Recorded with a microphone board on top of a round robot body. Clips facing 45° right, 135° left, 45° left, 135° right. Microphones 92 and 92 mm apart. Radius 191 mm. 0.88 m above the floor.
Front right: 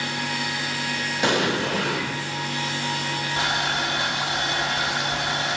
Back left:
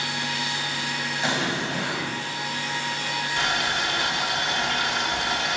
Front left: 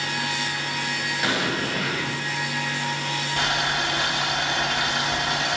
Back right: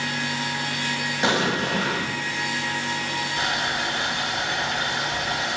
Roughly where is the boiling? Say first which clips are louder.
Front right 1 dB, front left 2 dB; ahead.